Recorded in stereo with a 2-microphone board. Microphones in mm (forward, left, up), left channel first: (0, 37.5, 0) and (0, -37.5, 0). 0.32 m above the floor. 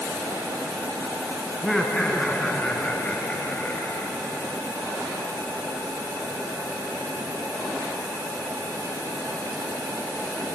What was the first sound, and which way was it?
Laughter, 5° left (ahead or behind).